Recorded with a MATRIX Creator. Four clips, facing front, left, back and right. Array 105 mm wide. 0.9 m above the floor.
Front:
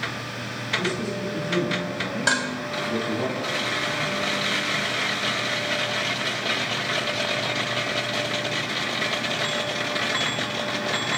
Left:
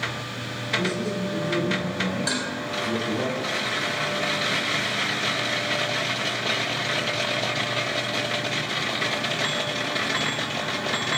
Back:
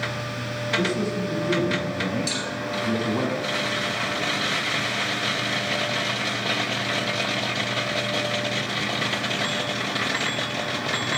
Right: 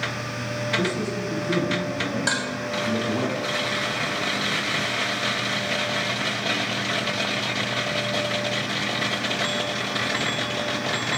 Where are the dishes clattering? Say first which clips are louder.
Right 2 dB, front 6 dB; 15° right, 4 m.